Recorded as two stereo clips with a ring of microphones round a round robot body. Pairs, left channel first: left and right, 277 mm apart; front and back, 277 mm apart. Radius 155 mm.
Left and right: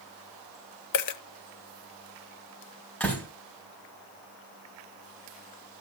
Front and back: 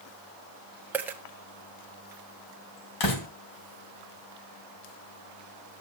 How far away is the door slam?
About 3 m.